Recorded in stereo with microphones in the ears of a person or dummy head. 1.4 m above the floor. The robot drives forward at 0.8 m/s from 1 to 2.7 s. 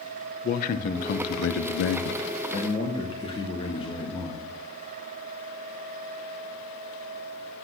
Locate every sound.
0.4 s a man speaking: 40° left (ahead or behind), 0.7 m; by 4.6 s 30° left (ahead or behind), 1.0 m